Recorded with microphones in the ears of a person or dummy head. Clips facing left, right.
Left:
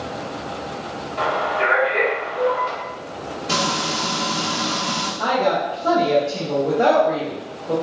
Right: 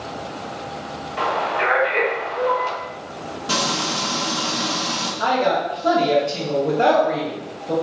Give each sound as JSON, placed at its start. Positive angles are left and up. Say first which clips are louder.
{"t": 1.2, "sound": "a man speaking", "louder": "left 1 dB", "side_deg": -70, "distance_m": 1.6}
{"t": 3.5, "sound": "frying", "louder": "even", "side_deg": -45, "distance_m": 1.0}
{"t": 5.2, "sound": "a woman speaking", "louder": "even", "side_deg": -35, "distance_m": 1.1}